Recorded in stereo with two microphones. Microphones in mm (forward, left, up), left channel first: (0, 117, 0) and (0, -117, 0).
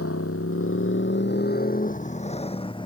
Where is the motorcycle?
85° left; by 2.9 s 20° left (ahead or behind).